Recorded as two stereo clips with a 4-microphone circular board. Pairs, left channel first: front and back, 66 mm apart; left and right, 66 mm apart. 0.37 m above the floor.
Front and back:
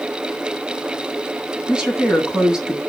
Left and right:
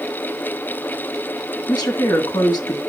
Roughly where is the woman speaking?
Left.